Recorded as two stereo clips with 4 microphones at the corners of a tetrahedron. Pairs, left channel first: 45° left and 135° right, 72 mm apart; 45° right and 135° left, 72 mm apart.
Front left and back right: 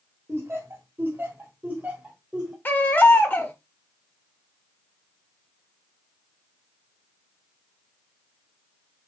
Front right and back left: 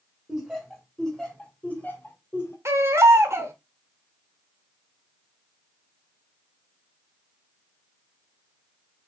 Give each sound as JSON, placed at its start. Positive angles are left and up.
{"t": 0.3, "sound": "laughter", "azimuth_deg": -145, "distance_m": 1.5}
{"t": 2.6, "sound": "a baby crying", "azimuth_deg": 105, "distance_m": 0.9}